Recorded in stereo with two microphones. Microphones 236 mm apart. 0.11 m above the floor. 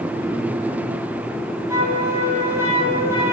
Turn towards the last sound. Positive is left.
turn(degrees=-10)  # may be behind; listen again after turning